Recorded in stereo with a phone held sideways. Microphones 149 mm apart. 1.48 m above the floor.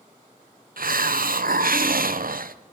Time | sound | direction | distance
0.8 | a hiss | 75° right (ahead or behind) | 0.7 m